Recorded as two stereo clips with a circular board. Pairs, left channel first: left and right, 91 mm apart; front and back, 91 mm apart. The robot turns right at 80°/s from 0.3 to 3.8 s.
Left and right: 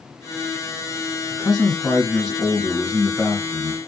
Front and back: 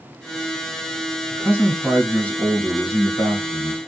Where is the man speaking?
145° right, 1.7 m; by 3.8 s 50° left, 1.7 m.